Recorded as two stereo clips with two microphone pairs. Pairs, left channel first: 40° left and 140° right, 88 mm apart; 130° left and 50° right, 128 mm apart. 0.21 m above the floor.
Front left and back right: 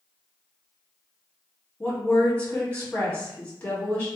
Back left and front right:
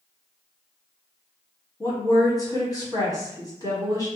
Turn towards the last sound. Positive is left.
turn(degrees=100)